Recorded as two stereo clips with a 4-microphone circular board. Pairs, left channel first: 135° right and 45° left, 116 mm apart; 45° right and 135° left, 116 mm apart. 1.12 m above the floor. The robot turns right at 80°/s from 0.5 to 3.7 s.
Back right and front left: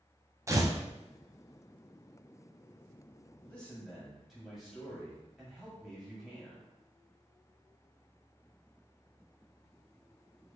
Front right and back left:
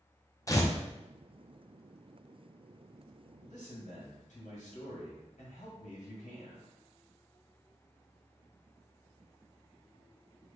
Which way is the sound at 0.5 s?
5° right.